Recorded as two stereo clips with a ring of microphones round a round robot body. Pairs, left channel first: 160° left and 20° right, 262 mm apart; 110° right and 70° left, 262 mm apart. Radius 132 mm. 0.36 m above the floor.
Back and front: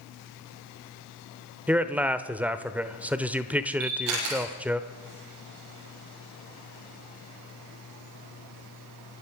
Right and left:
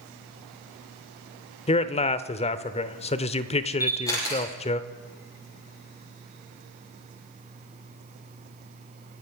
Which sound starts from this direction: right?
A man speaking, at 1.7 s.